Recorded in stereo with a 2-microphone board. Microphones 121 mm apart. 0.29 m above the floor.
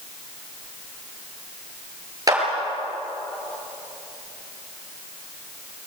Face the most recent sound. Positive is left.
turn(degrees=-30)  # may be behind; listen again after turning